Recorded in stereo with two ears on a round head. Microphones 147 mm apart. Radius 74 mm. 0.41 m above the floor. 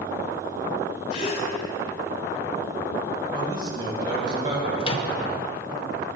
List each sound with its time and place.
1.1 s a gasp: 45° left (ahead or behind), 1.4 m
3.3 s a man speaking: 30° right (ahead or behind), 2.5 m
4.8 s a microwave: 35° left (ahead or behind), 0.7 m